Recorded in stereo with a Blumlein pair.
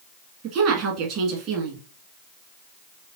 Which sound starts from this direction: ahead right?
A woman speaking, at 0.4 s.